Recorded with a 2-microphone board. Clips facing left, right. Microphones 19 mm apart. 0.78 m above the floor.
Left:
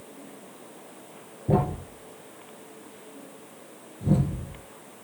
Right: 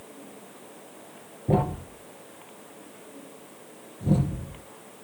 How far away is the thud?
About 3 m.